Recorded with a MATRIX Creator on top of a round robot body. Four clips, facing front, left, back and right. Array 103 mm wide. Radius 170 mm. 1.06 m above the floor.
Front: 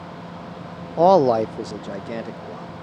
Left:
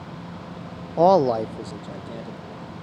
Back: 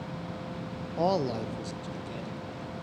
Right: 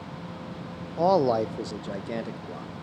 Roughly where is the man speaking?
Ahead left.